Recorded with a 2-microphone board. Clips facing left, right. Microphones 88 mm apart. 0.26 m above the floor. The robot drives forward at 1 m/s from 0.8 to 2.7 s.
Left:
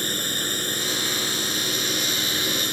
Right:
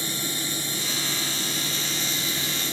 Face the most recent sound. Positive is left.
turn(degrees=60)  # may be behind; listen again after turning